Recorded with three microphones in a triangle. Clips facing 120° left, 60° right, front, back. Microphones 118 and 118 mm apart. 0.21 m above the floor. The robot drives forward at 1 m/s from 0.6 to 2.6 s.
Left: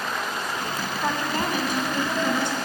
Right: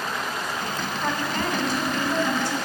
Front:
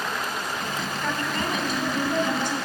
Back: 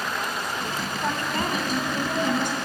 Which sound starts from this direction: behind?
A woman speaking, at 1.0 s.